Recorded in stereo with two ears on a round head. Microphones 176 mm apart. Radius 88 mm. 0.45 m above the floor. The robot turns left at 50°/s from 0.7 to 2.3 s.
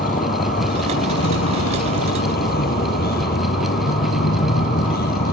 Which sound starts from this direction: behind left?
A vehicle, at 0.0 s.